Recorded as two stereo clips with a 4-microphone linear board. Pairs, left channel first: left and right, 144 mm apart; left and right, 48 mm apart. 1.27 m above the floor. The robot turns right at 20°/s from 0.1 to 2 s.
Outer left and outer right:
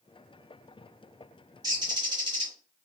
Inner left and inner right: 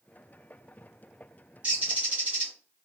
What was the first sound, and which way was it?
A bird, 30° right (ahead or behind).